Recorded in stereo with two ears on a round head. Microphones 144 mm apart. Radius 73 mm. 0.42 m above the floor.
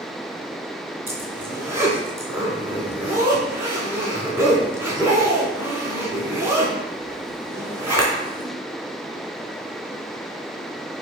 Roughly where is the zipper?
Centre.